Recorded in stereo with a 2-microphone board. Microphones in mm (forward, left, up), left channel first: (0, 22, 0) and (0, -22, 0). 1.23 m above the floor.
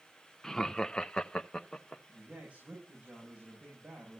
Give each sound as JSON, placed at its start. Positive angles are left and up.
{"t": 0.4, "sound": "laughter", "side_deg": 10, "distance_m": 0.7}
{"t": 2.1, "sound": "a man speaking", "side_deg": -35, "distance_m": 7.5}